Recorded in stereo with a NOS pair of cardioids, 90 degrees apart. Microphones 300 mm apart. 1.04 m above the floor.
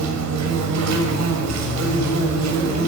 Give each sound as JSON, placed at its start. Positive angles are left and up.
{"t": 0.0, "sound": "an insect", "azimuth_deg": -65, "distance_m": 7.0}